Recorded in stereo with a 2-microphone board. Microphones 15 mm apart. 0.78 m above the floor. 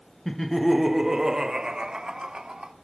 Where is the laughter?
30° left (ahead or behind), 0.5 m; by 2.7 s 55° right (ahead or behind), 1.6 m.